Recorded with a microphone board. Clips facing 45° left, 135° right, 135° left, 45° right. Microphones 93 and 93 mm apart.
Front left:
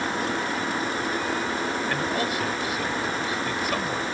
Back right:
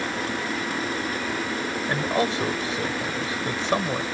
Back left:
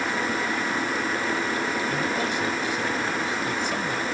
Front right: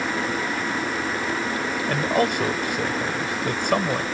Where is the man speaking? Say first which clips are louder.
Back right 2 dB, front right 4 dB; 75° right.